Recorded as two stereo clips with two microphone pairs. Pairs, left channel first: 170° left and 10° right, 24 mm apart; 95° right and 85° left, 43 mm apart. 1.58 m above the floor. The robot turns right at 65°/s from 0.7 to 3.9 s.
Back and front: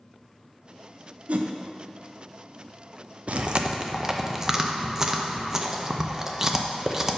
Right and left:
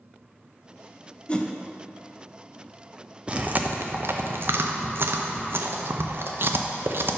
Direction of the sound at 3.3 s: 20° left.